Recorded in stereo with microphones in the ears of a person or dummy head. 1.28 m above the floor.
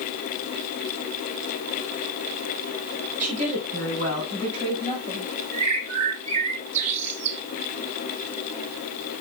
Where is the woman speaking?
40° right (ahead or behind), 5 m; by 5.3 s 25° right (ahead or behind), 5 m.